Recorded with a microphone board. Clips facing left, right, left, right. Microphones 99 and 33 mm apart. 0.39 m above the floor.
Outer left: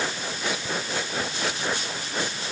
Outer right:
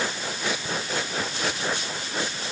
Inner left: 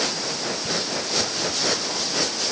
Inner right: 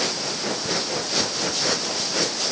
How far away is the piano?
No piano in this recording.